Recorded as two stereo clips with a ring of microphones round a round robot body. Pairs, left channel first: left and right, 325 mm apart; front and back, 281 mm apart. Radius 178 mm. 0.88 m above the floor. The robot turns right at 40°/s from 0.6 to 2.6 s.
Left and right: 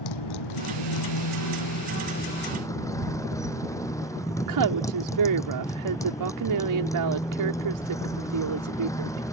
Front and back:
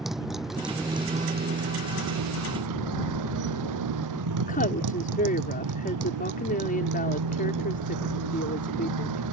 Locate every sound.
0.0 s a motorcycle: 90° left; by 9.3 s 170° left
4.4 s a woman speaking: 65° right